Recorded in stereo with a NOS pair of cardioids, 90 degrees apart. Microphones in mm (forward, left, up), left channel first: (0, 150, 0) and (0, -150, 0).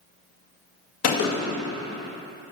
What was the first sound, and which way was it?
A gunshot, 60° left.